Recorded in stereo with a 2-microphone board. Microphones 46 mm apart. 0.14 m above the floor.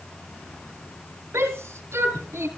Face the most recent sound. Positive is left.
turn(degrees=-55)  # may be behind; listen again after turning